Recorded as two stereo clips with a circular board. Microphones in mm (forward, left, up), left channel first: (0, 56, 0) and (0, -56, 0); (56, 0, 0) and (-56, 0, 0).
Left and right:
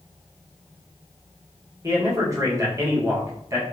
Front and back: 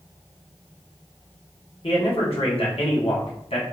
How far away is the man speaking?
About 1.1 m.